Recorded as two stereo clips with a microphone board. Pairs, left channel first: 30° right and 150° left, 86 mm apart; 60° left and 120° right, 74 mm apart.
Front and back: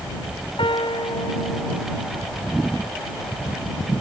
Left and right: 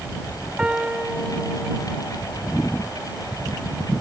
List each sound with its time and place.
0.6 s a piano: 45° right